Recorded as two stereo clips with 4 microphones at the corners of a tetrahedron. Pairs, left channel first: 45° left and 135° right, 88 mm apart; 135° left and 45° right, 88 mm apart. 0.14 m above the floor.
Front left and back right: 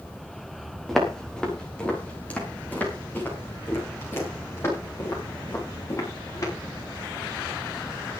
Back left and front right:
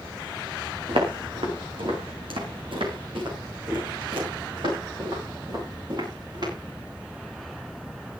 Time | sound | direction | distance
0.9 | footsteps | 45° right | 5.5 m